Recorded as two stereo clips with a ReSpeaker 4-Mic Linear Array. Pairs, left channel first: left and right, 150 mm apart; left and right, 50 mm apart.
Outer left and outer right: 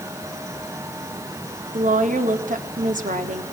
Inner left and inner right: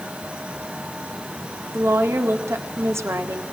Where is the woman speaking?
60° right (ahead or behind), 1.9 m.